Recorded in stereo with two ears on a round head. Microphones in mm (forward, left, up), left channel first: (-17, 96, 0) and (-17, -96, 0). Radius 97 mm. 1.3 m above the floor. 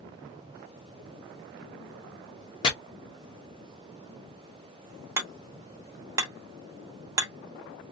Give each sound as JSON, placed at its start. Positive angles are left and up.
{"t": 2.6, "sound": "chopping", "side_deg": 20, "distance_m": 0.7}
{"t": 5.2, "sound": "hammering", "side_deg": -15, "distance_m": 0.7}